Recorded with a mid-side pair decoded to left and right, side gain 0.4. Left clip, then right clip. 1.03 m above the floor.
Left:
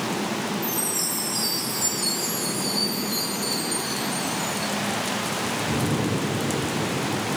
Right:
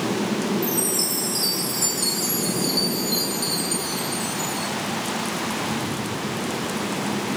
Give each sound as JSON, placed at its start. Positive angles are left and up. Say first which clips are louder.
{"t": 0.6, "sound": "a chime", "louder": "right 3 dB", "azimuth_deg": -65, "distance_m": 1.6}